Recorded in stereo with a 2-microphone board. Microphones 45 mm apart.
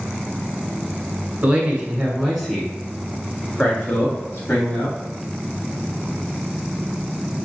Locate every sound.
1.4 s a man speaking: 25° right (ahead or behind), 1.4 m; by 5.0 s 50° left (ahead or behind), 2 m